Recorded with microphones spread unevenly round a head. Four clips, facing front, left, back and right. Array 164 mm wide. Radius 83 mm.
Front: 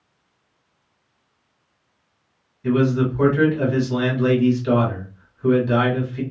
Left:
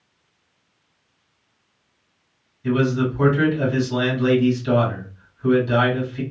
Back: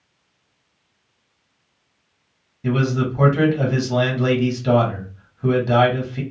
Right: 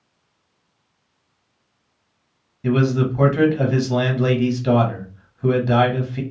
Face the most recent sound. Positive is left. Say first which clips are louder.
# right 1 dB, front 2 dB
turn(degrees=-125)